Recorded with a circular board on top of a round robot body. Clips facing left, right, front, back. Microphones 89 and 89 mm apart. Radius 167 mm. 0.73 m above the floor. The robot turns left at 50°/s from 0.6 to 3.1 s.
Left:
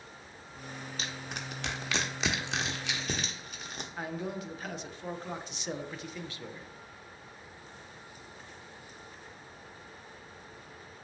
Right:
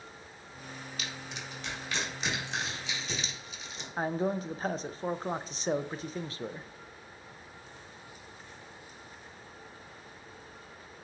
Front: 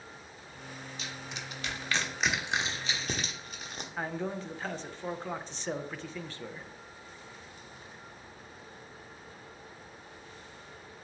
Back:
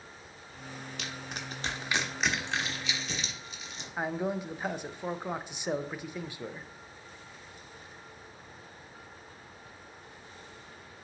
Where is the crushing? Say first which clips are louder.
Left 2 dB, back 2 dB; 150° left, 0.6 m; by 3.9 s 45° left, 0.6 m.